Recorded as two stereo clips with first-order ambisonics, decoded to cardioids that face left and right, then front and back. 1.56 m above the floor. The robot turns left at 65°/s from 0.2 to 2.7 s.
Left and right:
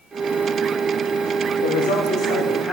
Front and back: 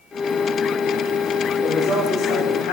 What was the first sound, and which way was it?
A woman speaking, 85° left.